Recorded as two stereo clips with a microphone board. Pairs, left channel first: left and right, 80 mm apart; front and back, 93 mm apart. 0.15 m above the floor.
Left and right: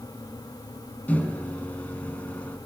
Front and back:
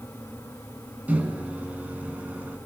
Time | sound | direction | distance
1.1 | a microwave | 130° left | 1.1 m